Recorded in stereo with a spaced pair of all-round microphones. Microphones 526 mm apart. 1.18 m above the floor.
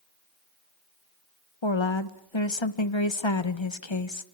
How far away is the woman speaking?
About 1.3 m.